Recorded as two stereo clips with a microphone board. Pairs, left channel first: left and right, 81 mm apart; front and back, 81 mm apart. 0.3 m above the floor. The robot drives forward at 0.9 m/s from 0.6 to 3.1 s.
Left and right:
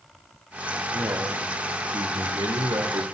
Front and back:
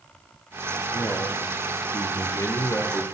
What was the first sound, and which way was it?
A man speaking, 45° right.